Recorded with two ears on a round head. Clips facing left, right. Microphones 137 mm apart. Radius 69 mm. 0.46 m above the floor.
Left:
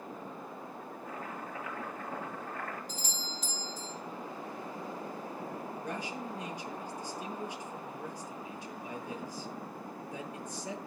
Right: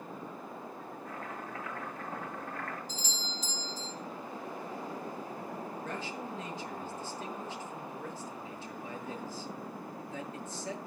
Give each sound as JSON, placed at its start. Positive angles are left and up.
{"t": 1.1, "sound": "chopping", "side_deg": 5, "distance_m": 9.5}
{"t": 2.9, "sound": "a doorbell", "side_deg": 45, "distance_m": 4.5}
{"t": 5.8, "sound": "a man speaking", "side_deg": 15, "distance_m": 7.0}